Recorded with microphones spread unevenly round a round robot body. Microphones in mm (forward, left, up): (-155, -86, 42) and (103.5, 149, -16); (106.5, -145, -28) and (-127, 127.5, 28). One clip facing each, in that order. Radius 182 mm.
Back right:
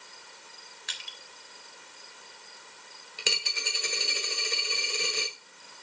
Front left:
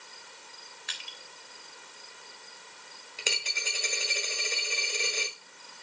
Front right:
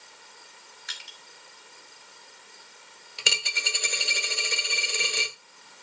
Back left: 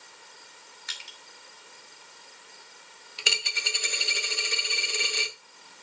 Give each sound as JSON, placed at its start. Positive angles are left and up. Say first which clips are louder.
{"t": 0.9, "sound": "crushing", "louder": "front left 1 dB, even", "azimuth_deg": -135, "distance_m": 3.0}
{"t": 3.2, "sound": "a dropped coin", "louder": "back right 1 dB, front right 1 dB", "azimuth_deg": -65, "distance_m": 1.4}